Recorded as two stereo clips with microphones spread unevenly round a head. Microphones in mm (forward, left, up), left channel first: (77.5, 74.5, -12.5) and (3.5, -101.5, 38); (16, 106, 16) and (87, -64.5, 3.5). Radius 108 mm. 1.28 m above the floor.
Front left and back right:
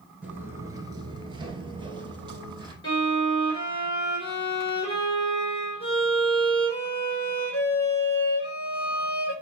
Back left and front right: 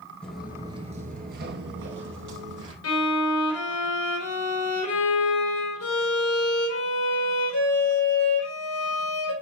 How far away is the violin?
About 4 m.